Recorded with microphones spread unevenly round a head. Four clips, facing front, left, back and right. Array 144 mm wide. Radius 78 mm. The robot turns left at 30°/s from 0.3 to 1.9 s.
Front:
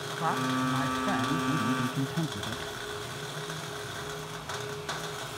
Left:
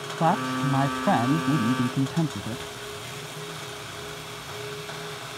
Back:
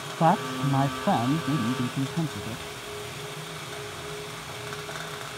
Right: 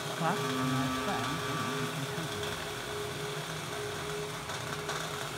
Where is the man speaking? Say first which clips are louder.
Left 8 dB, back 6 dB; 145° left; by 2.7 s 95° left.